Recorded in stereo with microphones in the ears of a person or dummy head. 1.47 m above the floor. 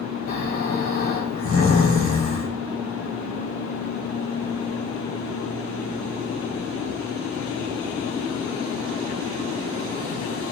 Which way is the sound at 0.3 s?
80° left.